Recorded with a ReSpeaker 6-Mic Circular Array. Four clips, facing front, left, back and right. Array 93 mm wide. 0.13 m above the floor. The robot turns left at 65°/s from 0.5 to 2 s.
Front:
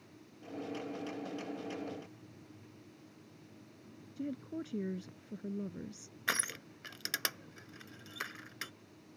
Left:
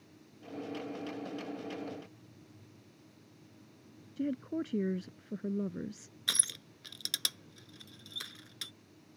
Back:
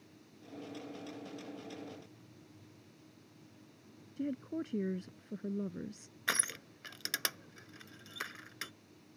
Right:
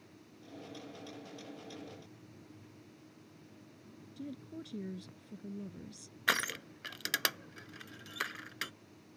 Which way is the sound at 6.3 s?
90° right.